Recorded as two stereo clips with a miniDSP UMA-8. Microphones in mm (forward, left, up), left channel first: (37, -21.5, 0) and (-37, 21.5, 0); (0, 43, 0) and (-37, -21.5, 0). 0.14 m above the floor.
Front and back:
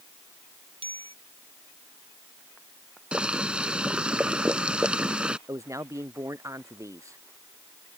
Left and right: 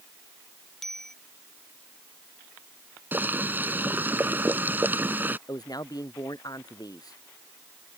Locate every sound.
0.8 s a bicycle bell: 145° left
3.1 s boiling: 145° right
5.5 s a man speaking: 95° left